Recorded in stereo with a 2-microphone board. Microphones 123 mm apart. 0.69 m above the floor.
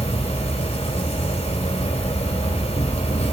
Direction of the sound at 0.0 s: 60° left (ahead or behind).